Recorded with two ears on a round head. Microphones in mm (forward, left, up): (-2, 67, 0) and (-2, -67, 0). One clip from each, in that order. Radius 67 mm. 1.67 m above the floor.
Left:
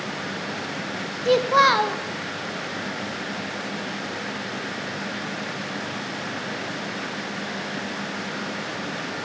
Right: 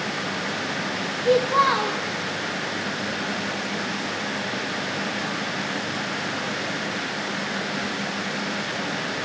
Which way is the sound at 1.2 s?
55° left (ahead or behind).